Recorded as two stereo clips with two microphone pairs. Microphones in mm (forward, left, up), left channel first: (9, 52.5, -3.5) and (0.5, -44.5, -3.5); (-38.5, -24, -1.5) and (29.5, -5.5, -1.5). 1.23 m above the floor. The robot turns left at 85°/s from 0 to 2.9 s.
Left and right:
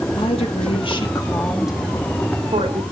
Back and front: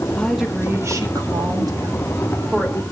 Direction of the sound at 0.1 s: 120° left.